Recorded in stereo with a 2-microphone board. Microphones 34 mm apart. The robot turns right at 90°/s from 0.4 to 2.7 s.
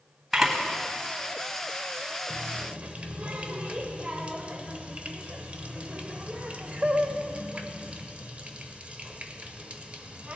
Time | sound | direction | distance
0.3 | a camera shutter | 10° right (ahead or behind) | 1.5 m
2.3 | a running tap | 85° right | 0.7 m